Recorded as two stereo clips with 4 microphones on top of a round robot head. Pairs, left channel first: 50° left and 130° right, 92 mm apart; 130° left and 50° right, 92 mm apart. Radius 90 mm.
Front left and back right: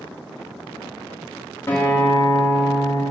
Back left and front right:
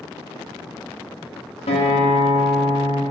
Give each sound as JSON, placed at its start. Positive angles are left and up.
{"t": 1.7, "sound": "a guitar", "azimuth_deg": 115, "distance_m": 3.0}